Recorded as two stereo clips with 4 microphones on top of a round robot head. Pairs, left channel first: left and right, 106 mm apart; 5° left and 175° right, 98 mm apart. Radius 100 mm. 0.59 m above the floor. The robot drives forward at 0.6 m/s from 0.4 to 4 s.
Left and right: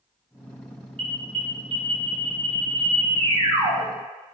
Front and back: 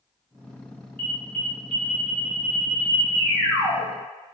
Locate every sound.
1.0 s an alarm: 65° right, 1.8 m; by 3.9 s 125° right, 2.0 m